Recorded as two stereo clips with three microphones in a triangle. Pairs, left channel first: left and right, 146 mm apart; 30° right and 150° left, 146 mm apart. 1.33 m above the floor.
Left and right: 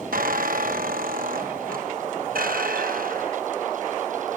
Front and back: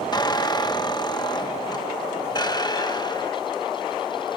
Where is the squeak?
90° right.